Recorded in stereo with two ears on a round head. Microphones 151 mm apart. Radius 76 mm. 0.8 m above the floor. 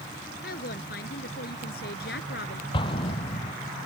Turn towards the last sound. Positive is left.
turn(degrees=30)  # may be behind; listen again after turning